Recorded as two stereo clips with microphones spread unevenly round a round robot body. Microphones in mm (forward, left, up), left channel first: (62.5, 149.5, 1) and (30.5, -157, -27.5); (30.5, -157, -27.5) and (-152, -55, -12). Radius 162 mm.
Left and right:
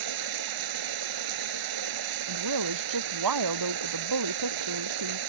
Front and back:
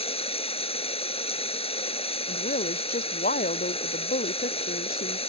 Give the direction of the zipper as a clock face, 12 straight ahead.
I don't hear a zipper.